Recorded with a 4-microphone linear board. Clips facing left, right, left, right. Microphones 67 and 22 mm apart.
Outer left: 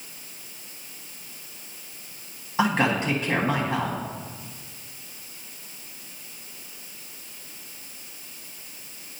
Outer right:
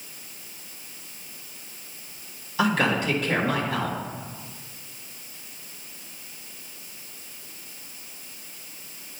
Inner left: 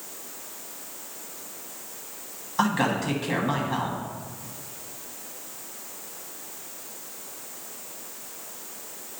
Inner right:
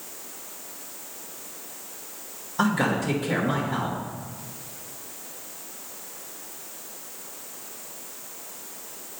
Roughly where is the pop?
I don't hear a pop.